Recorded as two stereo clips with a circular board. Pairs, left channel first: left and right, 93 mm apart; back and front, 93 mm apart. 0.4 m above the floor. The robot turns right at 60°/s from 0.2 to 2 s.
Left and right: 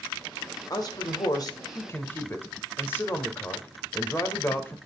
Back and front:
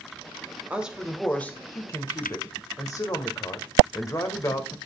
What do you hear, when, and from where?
0.7 s a man speaking: 70° left, 1.7 m; by 4.8 s 145° left, 1.7 m